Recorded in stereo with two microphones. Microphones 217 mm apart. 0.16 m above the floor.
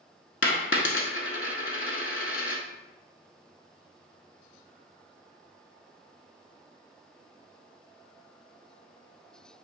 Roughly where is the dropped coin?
Left.